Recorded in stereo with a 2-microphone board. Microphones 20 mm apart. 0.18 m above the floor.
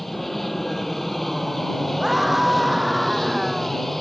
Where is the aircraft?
5° left (ahead or behind).